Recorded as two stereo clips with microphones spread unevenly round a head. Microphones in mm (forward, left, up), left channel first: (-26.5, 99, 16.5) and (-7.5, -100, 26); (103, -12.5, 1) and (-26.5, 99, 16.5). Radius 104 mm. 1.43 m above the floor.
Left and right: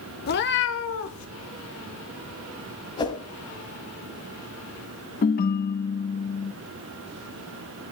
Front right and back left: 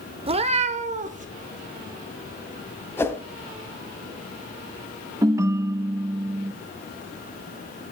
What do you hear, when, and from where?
0.3 s a cat meowing: 110° left, 0.8 m; by 1.3 s 105° left, 1.5 m
3.0 s a whoosh: 35° left, 1.5 m
5.2 s a ringtone: 85° left, 0.7 m